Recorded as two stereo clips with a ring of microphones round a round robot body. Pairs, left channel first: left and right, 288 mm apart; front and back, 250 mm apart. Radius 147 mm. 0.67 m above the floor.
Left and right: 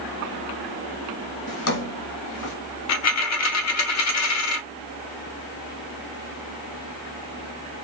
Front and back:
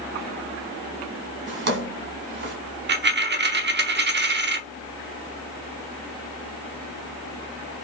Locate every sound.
1.5 s a drawer: 135° left, 1.6 m
2.9 s a dropped coin: 130° left, 0.7 m